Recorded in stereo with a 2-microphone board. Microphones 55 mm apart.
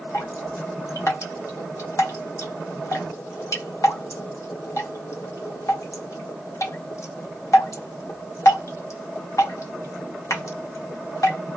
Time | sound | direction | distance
0.1 | dripping | 70° left (ahead or behind) | 0.8 m